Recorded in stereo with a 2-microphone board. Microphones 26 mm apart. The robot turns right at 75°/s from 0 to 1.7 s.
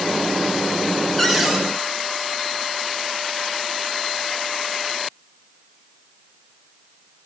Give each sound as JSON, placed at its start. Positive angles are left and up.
{"t": 1.2, "sound": "a cupboard door", "azimuth_deg": 175, "distance_m": 3.0}